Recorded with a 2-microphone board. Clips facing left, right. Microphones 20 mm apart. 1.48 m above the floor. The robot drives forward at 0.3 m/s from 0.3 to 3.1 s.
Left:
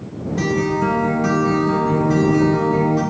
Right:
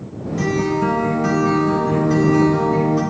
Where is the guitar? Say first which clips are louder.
Even; 20° left (ahead or behind), 0.5 m; by 3.0 s 10° left (ahead or behind), 1.3 m.